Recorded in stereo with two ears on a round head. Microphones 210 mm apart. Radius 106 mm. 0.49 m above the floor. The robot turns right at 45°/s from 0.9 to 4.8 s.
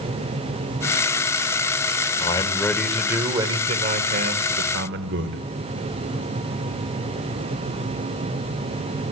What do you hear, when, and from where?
2.2 s a man speaking: 150° left, 2 m; by 5.4 s 95° right, 2 m